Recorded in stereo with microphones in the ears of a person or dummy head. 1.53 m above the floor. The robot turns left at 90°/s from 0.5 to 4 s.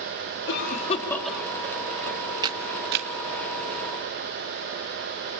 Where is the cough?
75° left (ahead or behind), 3.5 m; by 2.2 s 75° right (ahead or behind), 3.5 m.